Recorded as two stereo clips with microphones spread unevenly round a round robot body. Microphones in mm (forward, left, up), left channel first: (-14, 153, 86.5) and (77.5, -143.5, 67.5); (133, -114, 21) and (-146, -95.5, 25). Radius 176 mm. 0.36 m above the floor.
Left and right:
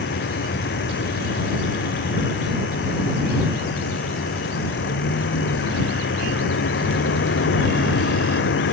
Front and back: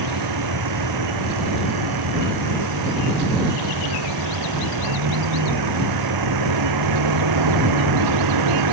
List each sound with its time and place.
0.0 s a vehicle: 165° left